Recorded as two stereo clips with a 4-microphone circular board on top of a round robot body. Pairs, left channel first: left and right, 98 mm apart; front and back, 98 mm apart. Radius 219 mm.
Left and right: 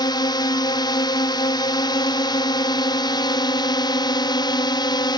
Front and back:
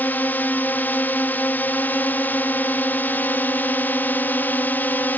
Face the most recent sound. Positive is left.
turn(degrees=65)